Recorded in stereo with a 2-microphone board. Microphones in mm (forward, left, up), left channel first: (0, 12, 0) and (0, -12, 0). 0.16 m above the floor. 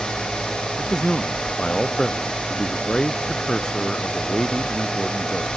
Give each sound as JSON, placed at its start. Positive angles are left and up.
{"t": 0.8, "sound": "a man speaking", "side_deg": 25}